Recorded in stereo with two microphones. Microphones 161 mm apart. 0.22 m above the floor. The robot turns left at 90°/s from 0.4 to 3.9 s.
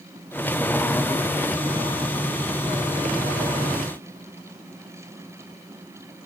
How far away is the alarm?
No alarm in this recording.